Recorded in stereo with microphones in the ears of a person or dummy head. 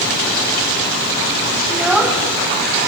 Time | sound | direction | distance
1.7 | a child speaking | 5° right (ahead or behind) | 1.8 m